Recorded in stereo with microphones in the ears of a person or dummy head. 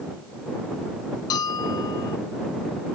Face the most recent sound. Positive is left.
turn(degrees=30)  # may be behind; listen again after turning